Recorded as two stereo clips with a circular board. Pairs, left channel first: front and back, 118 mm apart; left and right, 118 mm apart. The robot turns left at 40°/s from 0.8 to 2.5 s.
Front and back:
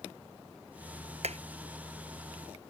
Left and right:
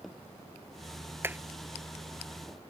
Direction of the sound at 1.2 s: 160° right.